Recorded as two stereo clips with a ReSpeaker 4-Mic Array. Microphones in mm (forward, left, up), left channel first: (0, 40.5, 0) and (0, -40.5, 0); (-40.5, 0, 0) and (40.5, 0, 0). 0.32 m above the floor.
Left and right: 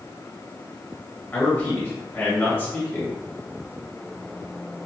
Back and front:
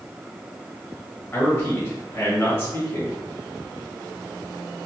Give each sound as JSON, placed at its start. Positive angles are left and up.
{"t": 1.3, "sound": "a man speaking", "azimuth_deg": 140, "distance_m": 1.6}